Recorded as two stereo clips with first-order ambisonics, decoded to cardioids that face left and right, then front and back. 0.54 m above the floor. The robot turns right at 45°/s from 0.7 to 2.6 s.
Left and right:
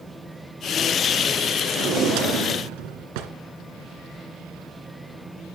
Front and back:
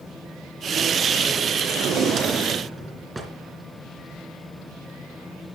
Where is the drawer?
140° right, 2.5 m; by 3.3 s 100° right, 2.5 m.